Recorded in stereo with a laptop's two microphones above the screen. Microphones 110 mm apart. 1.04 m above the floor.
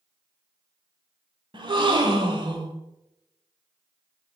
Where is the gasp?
45° right (ahead or behind), 1.6 m.